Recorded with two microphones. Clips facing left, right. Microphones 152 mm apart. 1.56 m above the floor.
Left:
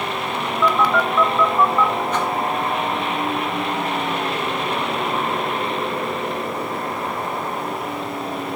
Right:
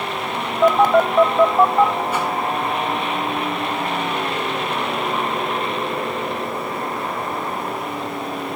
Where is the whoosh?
10° right (ahead or behind), 3 m.